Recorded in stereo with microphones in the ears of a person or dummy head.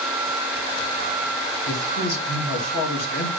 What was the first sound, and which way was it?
A man speaking, 80° left.